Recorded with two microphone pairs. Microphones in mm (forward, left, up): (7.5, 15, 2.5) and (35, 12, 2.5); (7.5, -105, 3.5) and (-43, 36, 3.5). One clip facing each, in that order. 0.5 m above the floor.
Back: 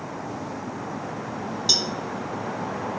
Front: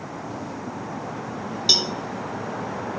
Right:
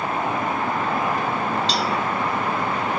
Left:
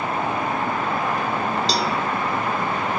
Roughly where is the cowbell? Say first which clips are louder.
Front 3 dB, even; ahead left.